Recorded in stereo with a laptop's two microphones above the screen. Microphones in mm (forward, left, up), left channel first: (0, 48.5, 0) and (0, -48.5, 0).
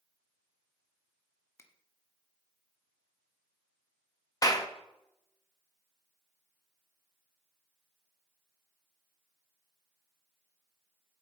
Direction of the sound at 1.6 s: 25° left (ahead or behind).